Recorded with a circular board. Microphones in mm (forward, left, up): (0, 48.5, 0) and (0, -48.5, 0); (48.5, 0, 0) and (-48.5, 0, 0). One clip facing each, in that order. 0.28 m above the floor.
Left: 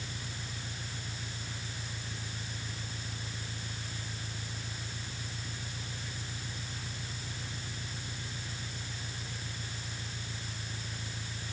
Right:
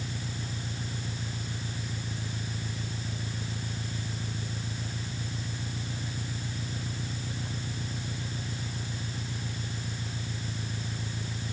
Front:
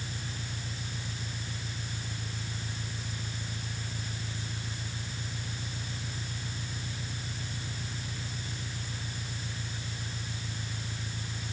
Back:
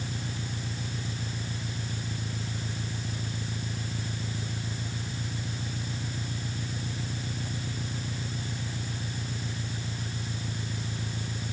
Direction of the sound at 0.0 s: 140° right.